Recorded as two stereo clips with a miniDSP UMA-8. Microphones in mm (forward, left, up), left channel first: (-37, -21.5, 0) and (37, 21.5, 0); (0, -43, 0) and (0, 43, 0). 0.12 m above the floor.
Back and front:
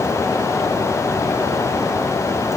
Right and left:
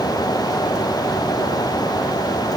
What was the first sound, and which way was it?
Only background noise.